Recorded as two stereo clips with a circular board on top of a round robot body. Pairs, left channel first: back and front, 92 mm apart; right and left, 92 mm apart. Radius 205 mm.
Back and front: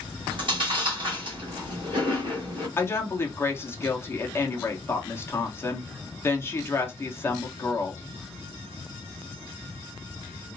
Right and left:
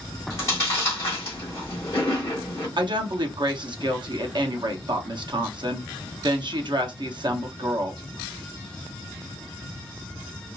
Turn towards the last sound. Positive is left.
turn(degrees=120)